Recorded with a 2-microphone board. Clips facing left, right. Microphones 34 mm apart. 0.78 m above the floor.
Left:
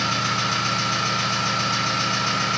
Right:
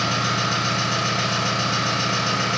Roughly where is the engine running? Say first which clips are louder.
Right 1 dB; right.